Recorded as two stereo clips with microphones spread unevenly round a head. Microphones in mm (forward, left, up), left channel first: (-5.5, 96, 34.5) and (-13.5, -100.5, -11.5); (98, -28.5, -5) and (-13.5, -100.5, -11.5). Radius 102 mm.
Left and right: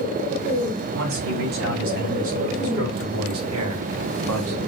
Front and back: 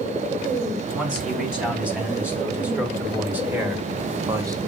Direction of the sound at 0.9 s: 65° right.